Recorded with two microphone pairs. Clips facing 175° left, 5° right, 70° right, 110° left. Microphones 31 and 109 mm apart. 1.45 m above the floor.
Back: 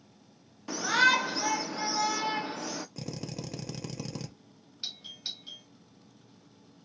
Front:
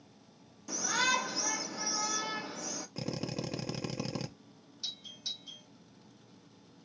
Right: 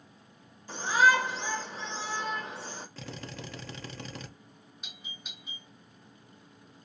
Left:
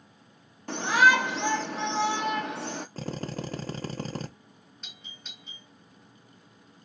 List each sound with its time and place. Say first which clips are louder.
0.7 s a shout: back 7 dB, left 2 dB; 130° left, 0.7 m
3.0 s a drill: front 2 dB, left 8 dB; 70° left, 0.5 m
4.8 s a doorbell: back 2 dB, right 1 dB; 145° right, 1.0 m